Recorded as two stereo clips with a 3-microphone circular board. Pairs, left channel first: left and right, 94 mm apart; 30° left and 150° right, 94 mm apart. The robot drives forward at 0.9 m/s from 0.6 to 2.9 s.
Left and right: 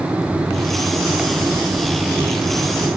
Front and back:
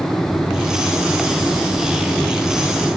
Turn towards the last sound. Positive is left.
No sound to turn to.